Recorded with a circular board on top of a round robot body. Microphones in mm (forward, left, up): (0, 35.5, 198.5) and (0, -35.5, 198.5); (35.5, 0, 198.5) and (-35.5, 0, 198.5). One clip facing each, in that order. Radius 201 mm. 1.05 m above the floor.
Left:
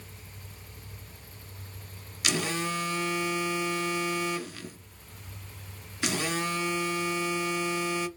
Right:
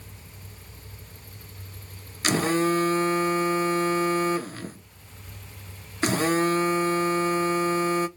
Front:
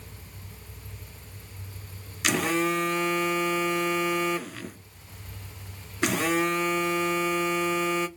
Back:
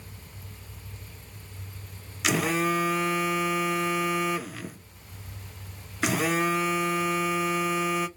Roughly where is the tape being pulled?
No tape being pulled in this recording.